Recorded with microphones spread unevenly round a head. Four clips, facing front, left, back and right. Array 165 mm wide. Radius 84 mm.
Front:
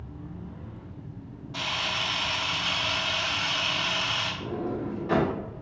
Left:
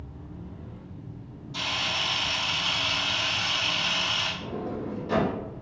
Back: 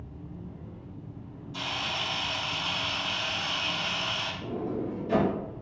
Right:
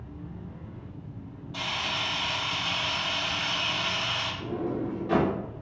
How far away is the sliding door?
About 1.2 m.